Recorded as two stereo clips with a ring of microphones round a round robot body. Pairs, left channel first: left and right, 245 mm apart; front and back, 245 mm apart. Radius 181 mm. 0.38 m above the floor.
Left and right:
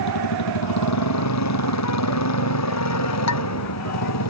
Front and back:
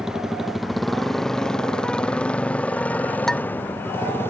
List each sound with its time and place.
0.0 s a motorcycle: 90° left; by 4.3 s 80° left
3.3 s dishes clattering: 90° left